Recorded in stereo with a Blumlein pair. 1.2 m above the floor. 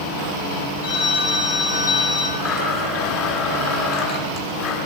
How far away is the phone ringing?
About 6 m.